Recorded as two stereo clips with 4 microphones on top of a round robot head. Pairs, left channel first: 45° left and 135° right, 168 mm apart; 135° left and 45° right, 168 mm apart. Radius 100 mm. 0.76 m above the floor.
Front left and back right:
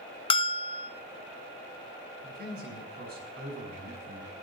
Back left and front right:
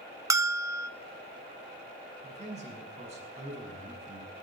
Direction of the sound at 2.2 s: 100° right.